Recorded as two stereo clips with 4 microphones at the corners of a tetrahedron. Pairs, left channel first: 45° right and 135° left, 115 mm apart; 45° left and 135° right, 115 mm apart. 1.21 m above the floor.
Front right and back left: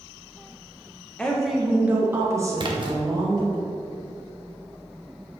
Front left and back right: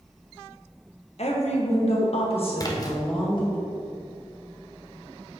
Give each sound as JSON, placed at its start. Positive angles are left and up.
{"t": 1.2, "sound": "a woman speaking", "azimuth_deg": 35, "distance_m": 1.1}
{"t": 2.6, "sound": "a splash", "azimuth_deg": 100, "distance_m": 0.9}